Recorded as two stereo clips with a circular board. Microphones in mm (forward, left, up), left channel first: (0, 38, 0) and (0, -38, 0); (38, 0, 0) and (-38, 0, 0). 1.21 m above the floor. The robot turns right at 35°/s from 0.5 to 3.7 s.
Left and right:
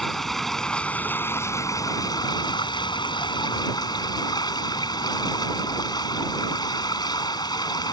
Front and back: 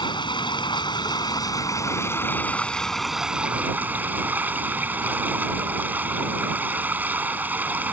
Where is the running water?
Straight ahead; by 7.9 s 115° left.